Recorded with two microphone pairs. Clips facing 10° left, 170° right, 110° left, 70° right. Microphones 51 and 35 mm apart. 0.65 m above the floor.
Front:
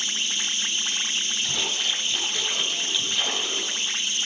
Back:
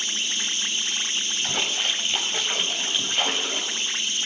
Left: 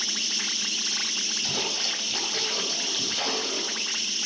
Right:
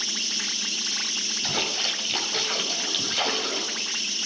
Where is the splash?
125° right, 3.5 m.